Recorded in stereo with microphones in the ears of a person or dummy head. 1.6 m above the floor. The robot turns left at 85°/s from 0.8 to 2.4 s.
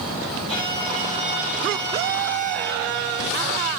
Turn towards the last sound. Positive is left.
turn(degrees=95)